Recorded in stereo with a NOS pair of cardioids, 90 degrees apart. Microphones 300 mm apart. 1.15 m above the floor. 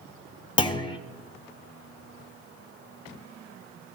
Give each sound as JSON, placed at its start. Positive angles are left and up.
{"t": 0.6, "sound": "a clunk", "azimuth_deg": 20, "distance_m": 1.6}